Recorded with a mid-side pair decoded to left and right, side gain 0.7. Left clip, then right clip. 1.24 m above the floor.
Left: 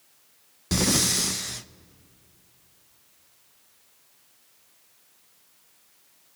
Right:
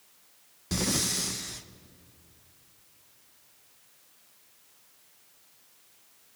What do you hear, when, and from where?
0.7 s breathing: 25° left, 0.6 m